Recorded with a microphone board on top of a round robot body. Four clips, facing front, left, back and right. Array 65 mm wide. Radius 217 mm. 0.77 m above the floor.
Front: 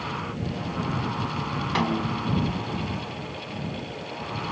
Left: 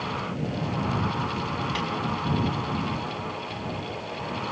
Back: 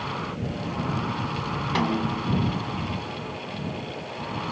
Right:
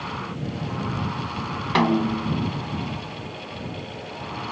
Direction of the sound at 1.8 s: 90° right.